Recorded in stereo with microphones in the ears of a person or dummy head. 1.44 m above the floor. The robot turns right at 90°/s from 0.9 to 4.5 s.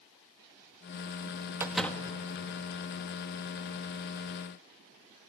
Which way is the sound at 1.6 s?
15° right.